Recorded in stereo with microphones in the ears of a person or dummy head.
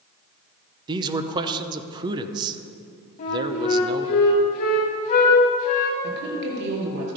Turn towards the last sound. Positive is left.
turn(degrees=-65)  # may be behind; listen again after turning